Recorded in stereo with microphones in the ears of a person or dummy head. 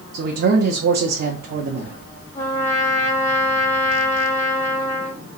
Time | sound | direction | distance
0.1 | a man speaking | 55° right (ahead or behind) | 0.5 m
2.4 | a trumpet | 20° left (ahead or behind) | 0.8 m